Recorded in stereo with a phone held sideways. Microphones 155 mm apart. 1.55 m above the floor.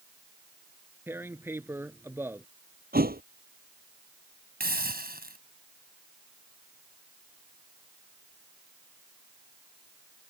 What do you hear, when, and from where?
1.1 s tearing paper: 15° right (ahead or behind)
2.9 s a thud: 75° right (ahead or behind)
4.6 s a hiss: 80° right